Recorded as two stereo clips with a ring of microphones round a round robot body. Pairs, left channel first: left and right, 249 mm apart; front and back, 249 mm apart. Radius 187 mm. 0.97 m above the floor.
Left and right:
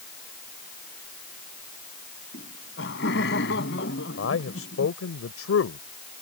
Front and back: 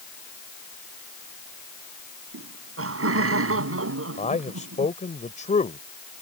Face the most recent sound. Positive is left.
turn(degrees=60)